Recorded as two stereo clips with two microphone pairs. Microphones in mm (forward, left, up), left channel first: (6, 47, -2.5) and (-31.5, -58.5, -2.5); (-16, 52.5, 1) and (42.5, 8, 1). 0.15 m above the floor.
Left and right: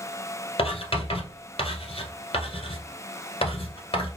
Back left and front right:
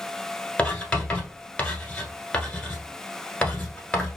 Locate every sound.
0.6 s writing: 70° left, 1.2 m